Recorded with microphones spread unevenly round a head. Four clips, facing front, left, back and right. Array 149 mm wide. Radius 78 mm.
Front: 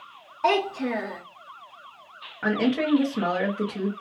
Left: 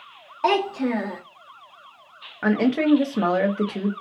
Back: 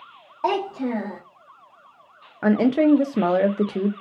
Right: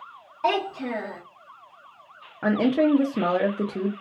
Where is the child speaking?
140° left, 0.8 m.